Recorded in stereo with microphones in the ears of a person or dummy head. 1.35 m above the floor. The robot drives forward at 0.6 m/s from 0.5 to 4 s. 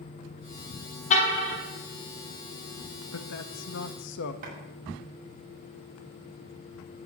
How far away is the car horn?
About 5.5 m.